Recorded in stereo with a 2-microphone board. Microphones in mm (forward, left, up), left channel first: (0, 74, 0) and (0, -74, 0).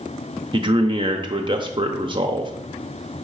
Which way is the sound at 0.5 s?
35° right (ahead or behind).